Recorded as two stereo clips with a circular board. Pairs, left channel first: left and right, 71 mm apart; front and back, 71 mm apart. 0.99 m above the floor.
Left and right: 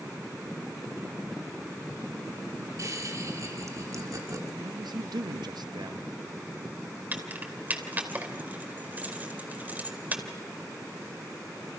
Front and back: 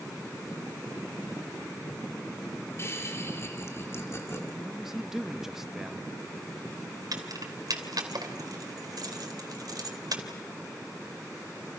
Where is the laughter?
50° right, 2.5 m.